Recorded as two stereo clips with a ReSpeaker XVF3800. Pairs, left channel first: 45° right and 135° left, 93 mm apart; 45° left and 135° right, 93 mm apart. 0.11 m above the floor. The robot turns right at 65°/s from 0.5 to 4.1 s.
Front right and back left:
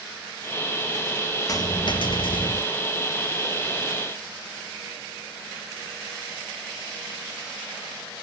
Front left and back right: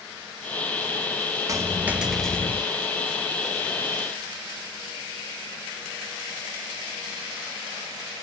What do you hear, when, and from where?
1.5 s a dropped coin: 90° right, 0.7 m; by 2.6 s 15° right, 0.7 m